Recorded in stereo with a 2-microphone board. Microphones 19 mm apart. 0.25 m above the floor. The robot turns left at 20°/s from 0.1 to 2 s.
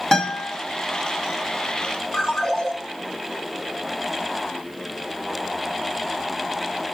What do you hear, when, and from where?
0.1 s a guitar: 35° left (ahead or behind), 2.0 m; by 0.5 s 30° left (ahead or behind), 2.0 m
2.1 s a ringtone: 40° left (ahead or behind), 1.2 m